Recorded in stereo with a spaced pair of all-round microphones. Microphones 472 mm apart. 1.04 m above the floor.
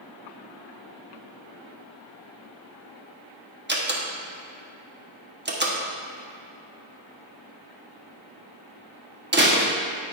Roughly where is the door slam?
Right.